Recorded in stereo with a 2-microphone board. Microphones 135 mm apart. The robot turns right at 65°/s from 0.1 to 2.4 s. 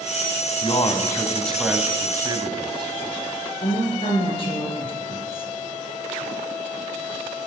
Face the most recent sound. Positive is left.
turn(degrees=40)  # may be behind; listen again after turning